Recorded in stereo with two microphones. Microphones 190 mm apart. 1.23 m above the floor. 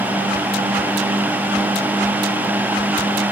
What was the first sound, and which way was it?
Only background noise.